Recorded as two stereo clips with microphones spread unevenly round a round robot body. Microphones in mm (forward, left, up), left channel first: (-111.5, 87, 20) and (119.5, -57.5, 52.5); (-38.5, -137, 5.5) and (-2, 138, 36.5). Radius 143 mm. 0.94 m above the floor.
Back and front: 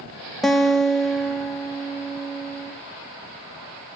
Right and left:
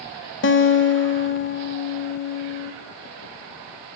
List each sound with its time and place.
0.4 s a guitar: 130° right, 1.0 m